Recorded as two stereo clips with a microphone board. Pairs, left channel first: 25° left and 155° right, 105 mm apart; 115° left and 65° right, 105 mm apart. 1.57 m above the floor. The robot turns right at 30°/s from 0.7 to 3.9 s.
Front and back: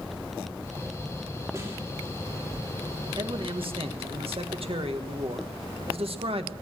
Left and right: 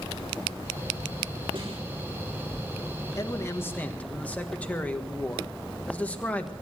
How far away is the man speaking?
About 1.6 m.